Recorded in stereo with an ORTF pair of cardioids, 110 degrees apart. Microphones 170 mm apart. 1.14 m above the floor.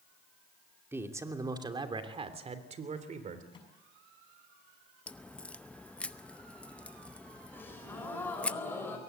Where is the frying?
No frying in this recording.